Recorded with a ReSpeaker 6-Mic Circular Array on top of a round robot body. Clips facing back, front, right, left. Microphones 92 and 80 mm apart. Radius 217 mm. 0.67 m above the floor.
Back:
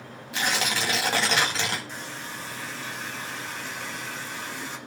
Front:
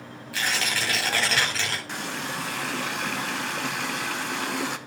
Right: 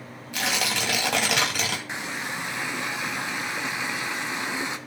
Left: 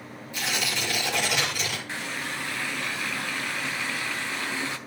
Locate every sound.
0.3 s tearing paper: 110° right, 2 m
1.9 s a running tap: 20° right, 0.9 m